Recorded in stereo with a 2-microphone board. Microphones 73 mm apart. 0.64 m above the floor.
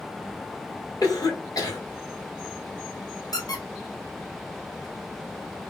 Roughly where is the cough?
Left.